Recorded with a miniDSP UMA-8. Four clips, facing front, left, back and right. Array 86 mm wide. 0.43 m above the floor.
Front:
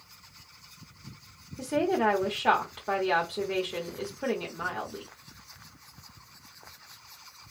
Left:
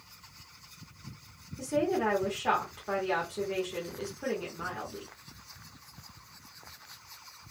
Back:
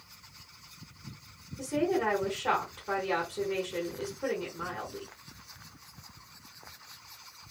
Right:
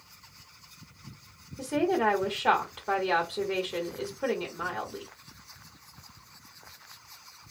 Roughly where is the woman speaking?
Ahead right.